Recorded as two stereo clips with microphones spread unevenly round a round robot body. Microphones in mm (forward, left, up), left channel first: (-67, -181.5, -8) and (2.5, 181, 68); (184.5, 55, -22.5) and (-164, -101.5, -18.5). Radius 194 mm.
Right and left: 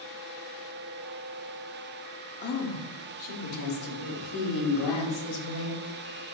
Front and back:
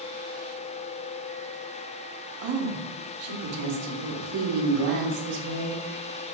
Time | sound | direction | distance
2.4 | a woman speaking | 135° right | 1.2 m